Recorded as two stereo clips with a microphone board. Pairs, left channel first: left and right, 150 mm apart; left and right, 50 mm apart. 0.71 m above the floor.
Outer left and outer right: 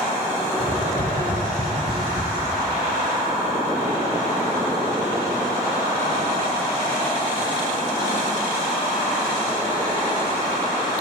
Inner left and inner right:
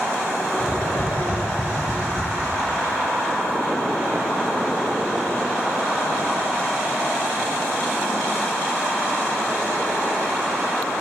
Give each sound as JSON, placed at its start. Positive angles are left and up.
{"t": 0.6, "sound": "tapping", "side_deg": 65, "distance_m": 9.5}